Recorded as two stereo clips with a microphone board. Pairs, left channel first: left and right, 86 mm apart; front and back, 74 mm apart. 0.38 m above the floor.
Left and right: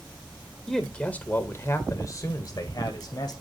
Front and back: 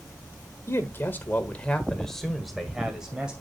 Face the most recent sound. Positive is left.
turn(degrees=105)